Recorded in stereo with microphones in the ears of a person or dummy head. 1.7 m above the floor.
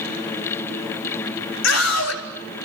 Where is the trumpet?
No trumpet in this recording.